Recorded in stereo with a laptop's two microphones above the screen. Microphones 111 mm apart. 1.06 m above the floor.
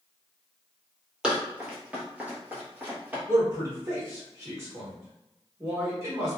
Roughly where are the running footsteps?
Centre.